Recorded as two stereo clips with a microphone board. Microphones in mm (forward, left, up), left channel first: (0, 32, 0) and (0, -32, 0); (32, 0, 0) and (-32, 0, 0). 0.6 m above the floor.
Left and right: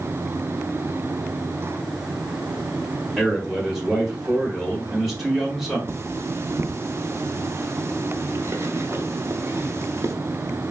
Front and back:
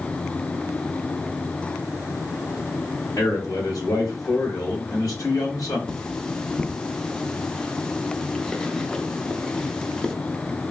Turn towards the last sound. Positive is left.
turn(degrees=-70)